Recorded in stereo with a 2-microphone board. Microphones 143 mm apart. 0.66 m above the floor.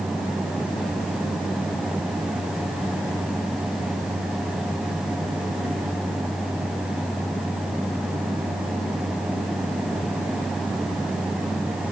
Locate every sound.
Only background noise.